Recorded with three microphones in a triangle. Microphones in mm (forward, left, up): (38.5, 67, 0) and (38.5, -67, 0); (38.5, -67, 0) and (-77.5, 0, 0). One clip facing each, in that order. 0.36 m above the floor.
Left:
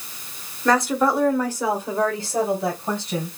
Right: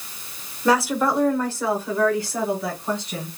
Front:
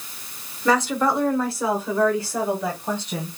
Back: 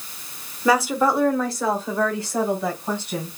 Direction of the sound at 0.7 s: 150° right.